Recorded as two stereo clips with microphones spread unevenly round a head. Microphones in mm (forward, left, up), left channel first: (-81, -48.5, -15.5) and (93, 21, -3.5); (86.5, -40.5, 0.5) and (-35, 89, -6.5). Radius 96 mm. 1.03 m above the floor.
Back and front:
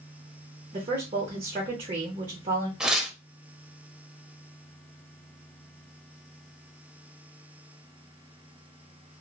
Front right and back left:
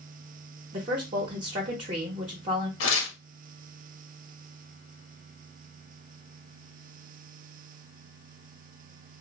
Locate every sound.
0.7 s a woman speaking: 80° left, 0.7 m
2.8 s tearing paper: 65° right, 0.7 m